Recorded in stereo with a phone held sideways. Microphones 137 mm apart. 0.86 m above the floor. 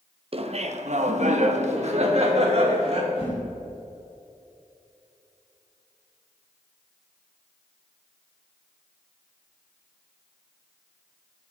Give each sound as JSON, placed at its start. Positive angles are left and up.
{"t": 0.3, "sound": "laughter", "side_deg": -45, "distance_m": 0.8}
{"t": 3.1, "sound": "a whoosh", "side_deg": 50, "distance_m": 3.0}